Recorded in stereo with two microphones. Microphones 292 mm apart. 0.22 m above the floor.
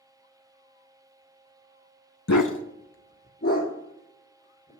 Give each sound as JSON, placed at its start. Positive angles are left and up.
{"t": 2.3, "sound": "a dog barking", "side_deg": 55, "distance_m": 0.5}